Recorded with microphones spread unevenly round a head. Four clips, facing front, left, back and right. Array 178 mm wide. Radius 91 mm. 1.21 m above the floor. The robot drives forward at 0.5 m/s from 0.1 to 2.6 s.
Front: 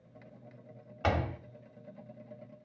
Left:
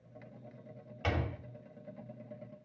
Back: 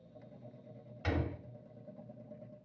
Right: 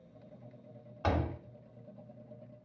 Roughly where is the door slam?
Ahead right.